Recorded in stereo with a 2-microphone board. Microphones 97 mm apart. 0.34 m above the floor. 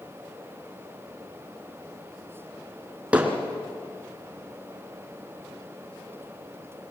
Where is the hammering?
15° right (ahead or behind), 3 m.